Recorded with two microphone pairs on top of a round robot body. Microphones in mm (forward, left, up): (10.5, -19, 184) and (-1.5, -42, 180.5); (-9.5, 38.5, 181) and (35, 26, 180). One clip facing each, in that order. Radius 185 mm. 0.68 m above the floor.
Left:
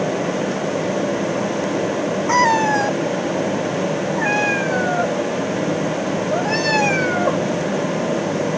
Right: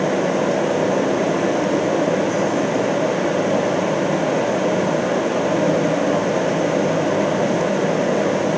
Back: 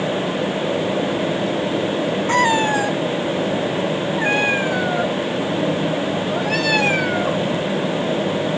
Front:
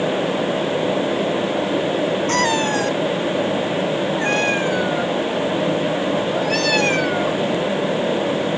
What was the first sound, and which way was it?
A cat meowing, 90° left.